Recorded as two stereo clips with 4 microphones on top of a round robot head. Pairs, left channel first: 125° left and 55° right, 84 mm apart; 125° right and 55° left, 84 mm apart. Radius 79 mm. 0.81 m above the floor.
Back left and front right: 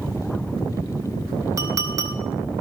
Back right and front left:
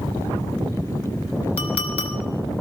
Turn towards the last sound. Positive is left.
turn(degrees=-110)